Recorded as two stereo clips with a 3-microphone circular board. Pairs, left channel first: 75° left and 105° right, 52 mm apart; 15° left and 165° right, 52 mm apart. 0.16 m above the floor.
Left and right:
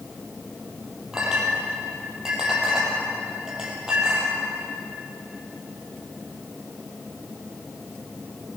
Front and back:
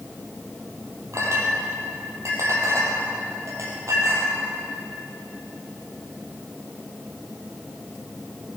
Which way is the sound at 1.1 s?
175° left.